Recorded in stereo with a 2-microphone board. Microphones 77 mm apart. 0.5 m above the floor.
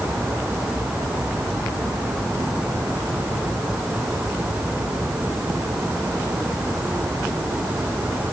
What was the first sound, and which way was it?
Only background noise.